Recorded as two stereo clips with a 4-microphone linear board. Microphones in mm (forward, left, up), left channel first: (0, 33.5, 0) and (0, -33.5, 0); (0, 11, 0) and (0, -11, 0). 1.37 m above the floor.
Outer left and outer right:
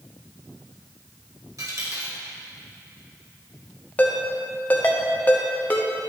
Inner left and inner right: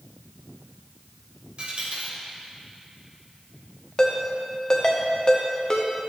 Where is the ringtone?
25° left (ahead or behind), 1.0 m.